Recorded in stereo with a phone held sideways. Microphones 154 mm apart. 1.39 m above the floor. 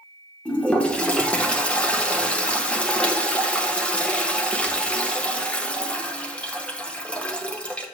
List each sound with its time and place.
0.5 s a toilet flushing: 5° left (ahead or behind), 0.8 m